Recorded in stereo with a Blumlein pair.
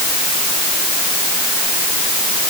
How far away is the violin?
No violin in this recording.